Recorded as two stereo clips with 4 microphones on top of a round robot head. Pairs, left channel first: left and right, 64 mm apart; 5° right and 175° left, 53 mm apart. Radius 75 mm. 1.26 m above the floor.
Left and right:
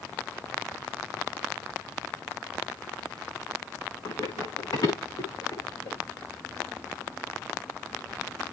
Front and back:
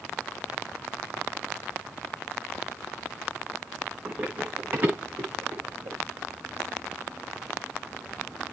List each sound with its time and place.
4.0 s running footsteps: 110° left, 6.5 m; by 6.0 s 125° left, 8 m